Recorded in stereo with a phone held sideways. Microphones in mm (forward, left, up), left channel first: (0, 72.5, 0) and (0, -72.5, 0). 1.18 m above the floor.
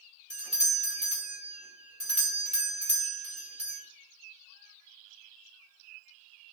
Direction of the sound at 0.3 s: 45° right (ahead or behind).